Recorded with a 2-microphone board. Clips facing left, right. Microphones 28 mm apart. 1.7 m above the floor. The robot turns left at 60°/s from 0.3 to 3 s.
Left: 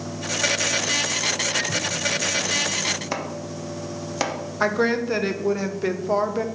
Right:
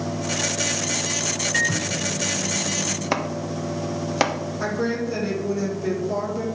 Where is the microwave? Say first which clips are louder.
Right 2 dB; 60° right, 1.1 m; by 3.0 s 145° right, 1.1 m.